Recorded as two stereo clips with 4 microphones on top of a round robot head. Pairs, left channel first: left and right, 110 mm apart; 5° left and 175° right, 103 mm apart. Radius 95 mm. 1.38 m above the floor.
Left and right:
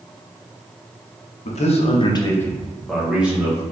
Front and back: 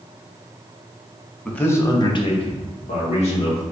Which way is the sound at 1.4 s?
85° left.